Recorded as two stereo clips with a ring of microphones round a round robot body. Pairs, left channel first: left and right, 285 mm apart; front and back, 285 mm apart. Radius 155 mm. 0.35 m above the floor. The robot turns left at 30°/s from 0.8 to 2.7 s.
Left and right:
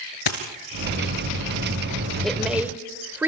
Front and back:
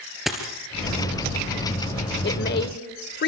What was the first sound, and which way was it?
A dropped coin, 90° left.